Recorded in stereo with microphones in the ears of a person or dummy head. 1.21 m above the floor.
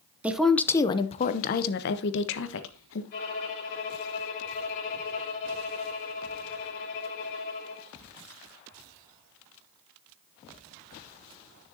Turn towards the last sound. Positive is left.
turn(degrees=50)  # may be behind; listen again after turning